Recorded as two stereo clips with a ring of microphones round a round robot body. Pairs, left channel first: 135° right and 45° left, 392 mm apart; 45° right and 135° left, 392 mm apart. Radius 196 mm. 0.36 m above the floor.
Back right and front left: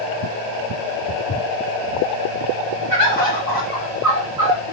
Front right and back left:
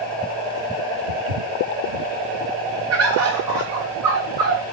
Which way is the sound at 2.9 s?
85° left.